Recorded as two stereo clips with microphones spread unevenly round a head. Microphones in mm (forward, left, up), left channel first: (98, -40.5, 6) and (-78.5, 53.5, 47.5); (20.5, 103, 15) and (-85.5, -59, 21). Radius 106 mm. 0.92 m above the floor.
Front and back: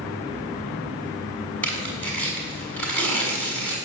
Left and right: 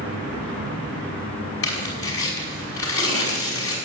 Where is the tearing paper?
55° left, 6 m.